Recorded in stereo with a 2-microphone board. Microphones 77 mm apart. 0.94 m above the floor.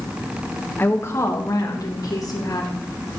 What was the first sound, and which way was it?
A woman speaking, 25° left (ahead or behind).